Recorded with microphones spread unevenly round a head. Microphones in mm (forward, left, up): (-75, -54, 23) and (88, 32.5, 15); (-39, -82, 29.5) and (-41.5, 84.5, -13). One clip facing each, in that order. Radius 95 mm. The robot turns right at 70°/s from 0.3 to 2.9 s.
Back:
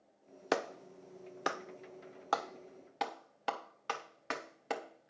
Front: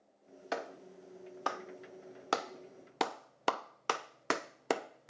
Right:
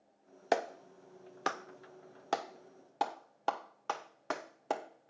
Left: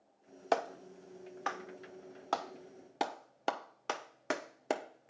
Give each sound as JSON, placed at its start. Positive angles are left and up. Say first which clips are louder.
{"t": 0.5, "sound": "a clap", "louder": "back 5 dB, right 1 dB", "azimuth_deg": -155, "distance_m": 0.7}